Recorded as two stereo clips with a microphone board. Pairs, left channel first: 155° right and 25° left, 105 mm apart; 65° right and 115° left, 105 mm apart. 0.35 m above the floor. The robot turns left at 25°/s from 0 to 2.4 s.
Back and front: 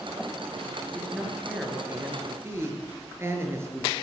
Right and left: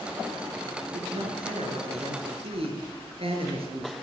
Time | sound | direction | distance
0.9 | a man speaking | 125° left | 5.5 m